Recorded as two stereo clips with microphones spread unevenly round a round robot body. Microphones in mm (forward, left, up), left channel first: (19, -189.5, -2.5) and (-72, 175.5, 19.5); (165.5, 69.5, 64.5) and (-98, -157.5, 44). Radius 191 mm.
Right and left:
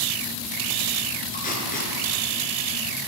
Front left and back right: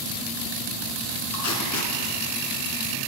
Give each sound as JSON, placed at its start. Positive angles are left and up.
{"t": 1.3, "sound": "tape being pulled", "azimuth_deg": -5, "distance_m": 1.6}